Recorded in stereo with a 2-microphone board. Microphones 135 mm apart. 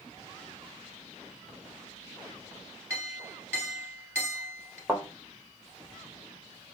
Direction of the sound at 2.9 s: 15° right (ahead or behind).